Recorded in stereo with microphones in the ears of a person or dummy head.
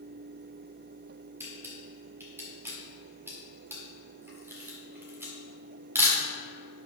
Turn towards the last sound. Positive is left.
turn(degrees=-10)  # may be behind; listen again after turning